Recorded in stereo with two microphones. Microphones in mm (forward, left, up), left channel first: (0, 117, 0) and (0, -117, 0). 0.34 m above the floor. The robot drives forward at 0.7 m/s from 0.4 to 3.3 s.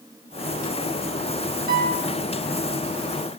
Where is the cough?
No cough in this recording.